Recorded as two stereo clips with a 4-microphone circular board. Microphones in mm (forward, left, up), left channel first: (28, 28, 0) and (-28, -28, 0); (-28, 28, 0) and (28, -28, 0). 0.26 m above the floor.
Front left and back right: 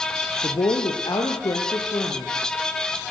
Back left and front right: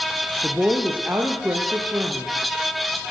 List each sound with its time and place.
0.4 s a woman speaking: 35° left, 5 m; by 2.3 s 20° left, 7 m